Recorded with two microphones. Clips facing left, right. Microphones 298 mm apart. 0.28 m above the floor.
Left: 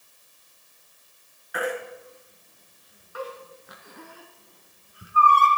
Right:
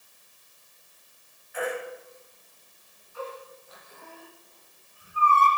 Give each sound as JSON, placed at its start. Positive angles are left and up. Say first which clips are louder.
{"t": 1.5, "sound": "a baby crying", "louder": "left 2 dB", "side_deg": 75, "distance_m": 2.5}